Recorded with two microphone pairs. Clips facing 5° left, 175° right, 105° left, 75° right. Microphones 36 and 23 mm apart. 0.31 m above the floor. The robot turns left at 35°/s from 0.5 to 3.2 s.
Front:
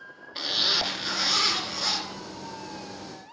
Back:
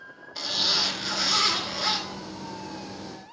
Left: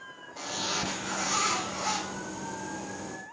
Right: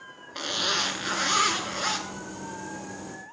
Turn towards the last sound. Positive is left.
turn(degrees=-150)